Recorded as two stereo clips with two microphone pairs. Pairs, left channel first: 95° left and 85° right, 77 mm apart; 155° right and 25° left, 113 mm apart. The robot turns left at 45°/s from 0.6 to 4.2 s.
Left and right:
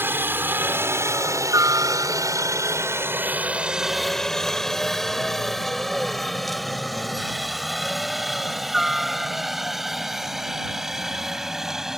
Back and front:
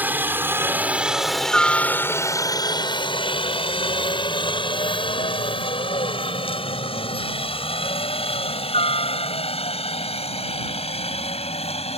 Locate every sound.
0.0 s a helicopter: 40° right; by 12.0 s 165° right